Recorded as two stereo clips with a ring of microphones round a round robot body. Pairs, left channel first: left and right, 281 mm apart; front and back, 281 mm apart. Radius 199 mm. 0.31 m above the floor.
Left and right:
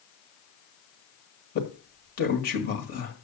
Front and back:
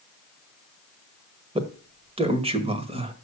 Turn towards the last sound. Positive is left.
turn(degrees=125)